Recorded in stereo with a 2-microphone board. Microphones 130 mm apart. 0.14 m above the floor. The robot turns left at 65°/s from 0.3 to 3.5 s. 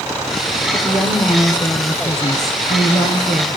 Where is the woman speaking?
165° right, 2.5 m; by 3.6 s 15° left, 2.5 m.